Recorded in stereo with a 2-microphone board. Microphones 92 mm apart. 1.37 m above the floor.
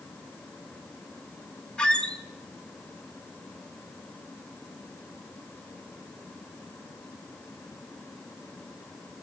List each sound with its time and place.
1.8 s a squeak: 10° left (ahead or behind), 0.7 m